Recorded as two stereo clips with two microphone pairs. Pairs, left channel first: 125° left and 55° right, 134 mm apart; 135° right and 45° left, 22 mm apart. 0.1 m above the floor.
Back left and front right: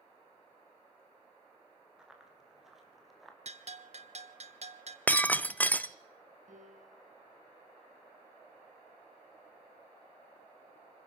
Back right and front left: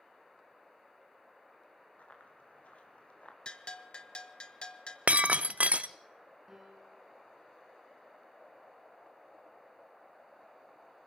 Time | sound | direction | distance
2.0 | running footsteps | 140° right | 5 m
3.5 | a bell | 90° right | 1.1 m
5.1 | breaking glass | 50° left | 0.5 m
6.5 | a piano | 35° right | 4.5 m